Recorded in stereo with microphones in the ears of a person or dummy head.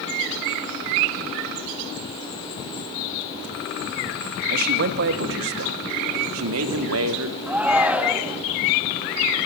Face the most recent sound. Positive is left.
turn(degrees=0)  # may be behind; listen again after turning